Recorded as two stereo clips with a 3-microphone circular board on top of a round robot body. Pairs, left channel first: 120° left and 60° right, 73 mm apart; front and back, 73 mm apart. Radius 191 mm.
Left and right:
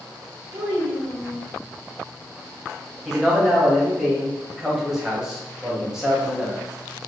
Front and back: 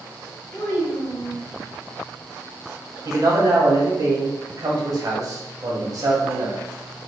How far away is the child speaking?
About 2 m.